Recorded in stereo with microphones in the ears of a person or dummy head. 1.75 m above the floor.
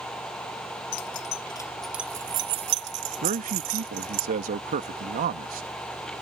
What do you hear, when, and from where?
0.9 s keys jangling: 45° left (ahead or behind); by 4.2 s 45° right (ahead or behind)
3.2 s a man speaking: 40° right (ahead or behind)